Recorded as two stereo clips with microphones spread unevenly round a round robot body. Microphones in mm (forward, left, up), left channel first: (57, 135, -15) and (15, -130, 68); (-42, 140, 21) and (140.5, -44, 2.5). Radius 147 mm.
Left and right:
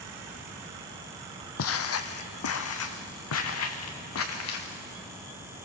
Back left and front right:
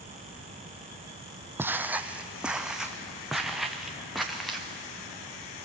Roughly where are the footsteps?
Ahead left.